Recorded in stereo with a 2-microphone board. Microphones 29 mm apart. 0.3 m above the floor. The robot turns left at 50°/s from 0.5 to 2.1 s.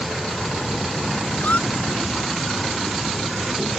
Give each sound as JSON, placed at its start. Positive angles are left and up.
{"t": 1.4, "sound": "a squeak", "side_deg": 75}